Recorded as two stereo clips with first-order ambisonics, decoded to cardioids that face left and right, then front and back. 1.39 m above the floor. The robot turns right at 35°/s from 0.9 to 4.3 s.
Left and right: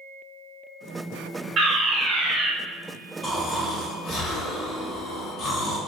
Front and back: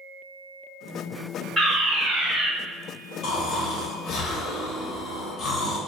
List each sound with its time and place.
1.6 s a fire alarm: 110° right, 0.8 m; by 2.5 s 75° right, 0.8 m
3.2 s snoring: straight ahead, 0.8 m; by 5.8 s 40° left, 0.8 m